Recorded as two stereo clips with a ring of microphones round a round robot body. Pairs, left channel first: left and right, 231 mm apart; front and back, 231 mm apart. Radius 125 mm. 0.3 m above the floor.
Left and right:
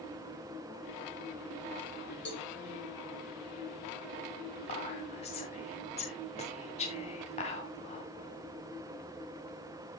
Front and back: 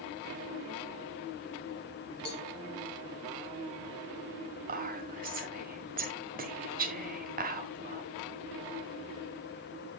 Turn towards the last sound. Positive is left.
turn(degrees=145)